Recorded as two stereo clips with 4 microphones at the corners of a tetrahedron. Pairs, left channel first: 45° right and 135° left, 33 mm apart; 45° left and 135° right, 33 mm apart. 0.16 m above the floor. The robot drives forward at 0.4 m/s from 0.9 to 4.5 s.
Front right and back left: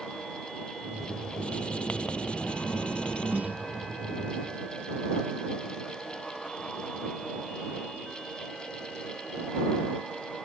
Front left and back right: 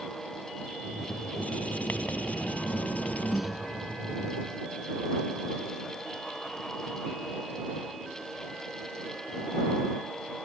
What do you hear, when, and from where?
1.4 s writing: 10° left; by 3.4 s 15° left
3.3 s a snare drum: 140° left; by 3.6 s 145° left